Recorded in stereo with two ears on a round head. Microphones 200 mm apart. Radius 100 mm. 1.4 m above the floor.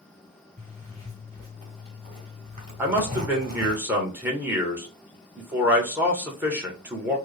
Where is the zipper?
30° right (ahead or behind), 2.5 m.